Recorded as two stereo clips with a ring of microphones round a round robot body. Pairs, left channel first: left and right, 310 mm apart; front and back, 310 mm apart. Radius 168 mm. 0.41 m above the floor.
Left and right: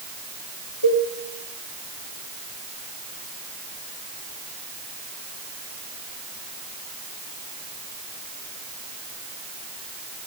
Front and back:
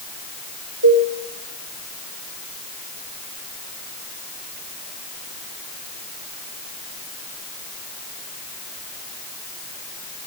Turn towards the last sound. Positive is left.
turn(degrees=130)